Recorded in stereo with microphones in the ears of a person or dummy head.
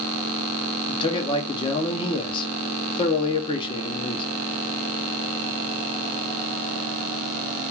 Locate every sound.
0.9 s a man speaking: 25° left (ahead or behind), 0.6 m